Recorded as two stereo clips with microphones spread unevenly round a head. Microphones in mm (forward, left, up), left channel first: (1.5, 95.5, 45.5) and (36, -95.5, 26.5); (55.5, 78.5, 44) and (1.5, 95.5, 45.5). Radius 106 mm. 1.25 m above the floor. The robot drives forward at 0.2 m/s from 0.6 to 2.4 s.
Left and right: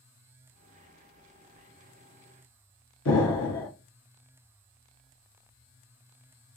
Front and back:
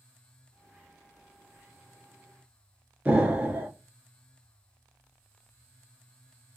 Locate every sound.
3.0 s an explosion: 105° left, 1.3 m